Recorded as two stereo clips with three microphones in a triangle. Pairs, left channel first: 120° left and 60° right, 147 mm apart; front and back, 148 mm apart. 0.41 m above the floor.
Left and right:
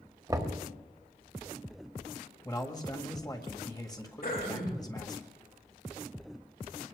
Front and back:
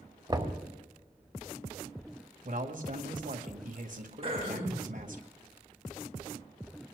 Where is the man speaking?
Straight behind, 1.8 m.